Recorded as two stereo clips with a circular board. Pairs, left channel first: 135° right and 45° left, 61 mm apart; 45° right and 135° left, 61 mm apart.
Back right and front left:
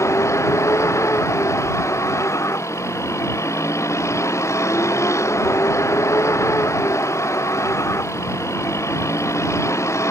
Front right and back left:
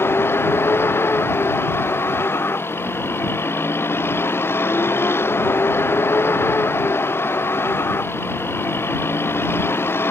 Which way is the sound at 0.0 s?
95° right.